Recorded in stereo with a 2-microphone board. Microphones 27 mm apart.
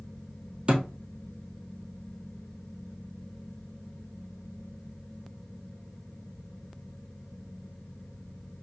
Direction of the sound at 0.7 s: 40° right (ahead or behind).